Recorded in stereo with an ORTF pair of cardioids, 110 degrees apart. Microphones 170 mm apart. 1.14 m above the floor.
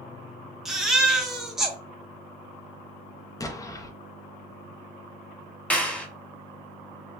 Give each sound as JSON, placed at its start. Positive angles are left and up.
{"t": 0.7, "sound": "a baby crying", "azimuth_deg": 0, "distance_m": 0.9}
{"t": 3.4, "sound": "an explosion", "azimuth_deg": 20, "distance_m": 0.7}
{"t": 5.7, "sound": "a clap", "azimuth_deg": 10, "distance_m": 1.1}